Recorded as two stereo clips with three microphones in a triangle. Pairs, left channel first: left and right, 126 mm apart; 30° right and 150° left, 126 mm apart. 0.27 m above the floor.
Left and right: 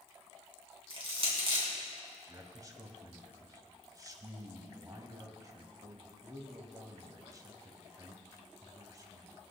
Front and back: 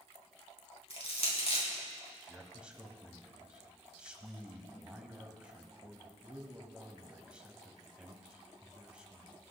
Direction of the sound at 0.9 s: 55° right.